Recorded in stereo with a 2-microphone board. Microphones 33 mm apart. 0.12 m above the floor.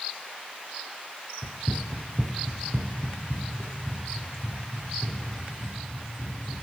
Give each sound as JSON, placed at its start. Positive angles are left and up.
{"t": 1.4, "sound": "running footsteps", "side_deg": -15, "distance_m": 0.7}